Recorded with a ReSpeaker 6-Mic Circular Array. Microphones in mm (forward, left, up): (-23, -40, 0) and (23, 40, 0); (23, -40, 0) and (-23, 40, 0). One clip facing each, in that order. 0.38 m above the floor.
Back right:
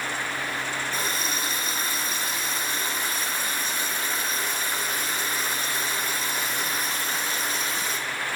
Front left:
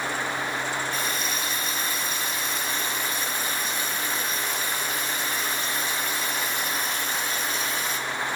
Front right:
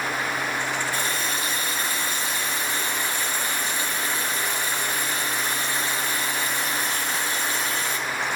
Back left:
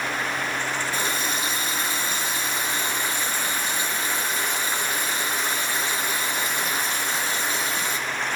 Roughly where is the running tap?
Behind.